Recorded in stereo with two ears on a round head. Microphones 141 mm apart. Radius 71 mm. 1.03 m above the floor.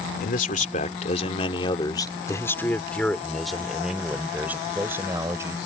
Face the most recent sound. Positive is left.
turn(degrees=-20)  # may be behind; listen again after turning